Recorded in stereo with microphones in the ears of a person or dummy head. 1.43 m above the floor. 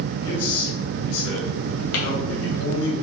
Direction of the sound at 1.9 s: 70° left (ahead or behind).